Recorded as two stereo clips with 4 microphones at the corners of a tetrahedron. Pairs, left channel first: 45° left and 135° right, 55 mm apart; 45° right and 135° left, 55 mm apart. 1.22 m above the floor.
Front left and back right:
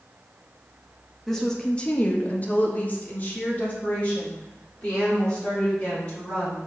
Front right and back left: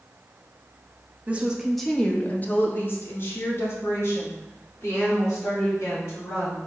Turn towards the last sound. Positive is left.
turn(degrees=-15)